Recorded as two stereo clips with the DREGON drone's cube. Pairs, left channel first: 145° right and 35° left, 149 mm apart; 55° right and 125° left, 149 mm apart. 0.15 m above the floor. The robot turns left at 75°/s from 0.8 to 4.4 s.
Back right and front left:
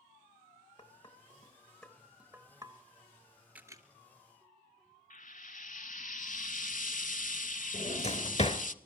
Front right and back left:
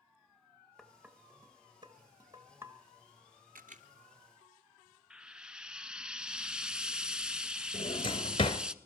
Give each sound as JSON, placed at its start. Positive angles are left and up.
{"t": 0.8, "sound": "dishes clattering", "azimuth_deg": -150, "distance_m": 1.1}
{"t": 3.5, "sound": "a camera shutter", "azimuth_deg": 115, "distance_m": 1.3}
{"t": 5.1, "sound": "frying", "azimuth_deg": -150, "distance_m": 0.7}
{"t": 7.7, "sound": "a drawer", "azimuth_deg": -105, "distance_m": 1.2}